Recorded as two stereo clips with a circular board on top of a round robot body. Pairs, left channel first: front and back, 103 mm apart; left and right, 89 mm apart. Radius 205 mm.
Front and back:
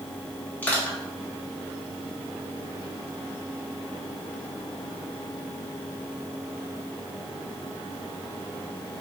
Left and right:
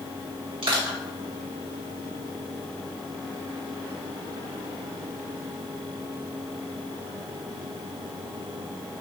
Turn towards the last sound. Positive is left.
turn(degrees=-70)